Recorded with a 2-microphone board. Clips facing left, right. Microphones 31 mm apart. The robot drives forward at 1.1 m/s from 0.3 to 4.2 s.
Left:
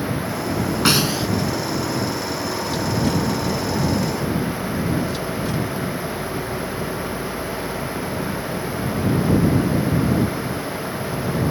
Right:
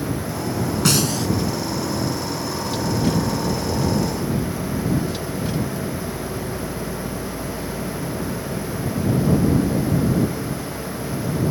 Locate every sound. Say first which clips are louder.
0.8 s a snare drum: left 2 dB; 30° left (ahead or behind); by 1.3 s 25° left (ahead or behind)